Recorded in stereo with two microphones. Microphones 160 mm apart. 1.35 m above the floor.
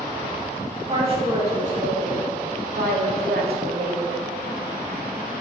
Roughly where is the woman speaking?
Right.